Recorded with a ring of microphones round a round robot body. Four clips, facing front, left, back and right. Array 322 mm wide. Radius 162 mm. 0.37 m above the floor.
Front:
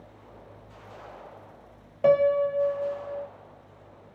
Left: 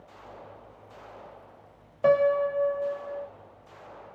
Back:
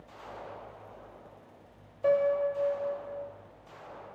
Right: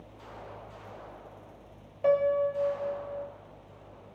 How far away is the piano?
About 0.5 m.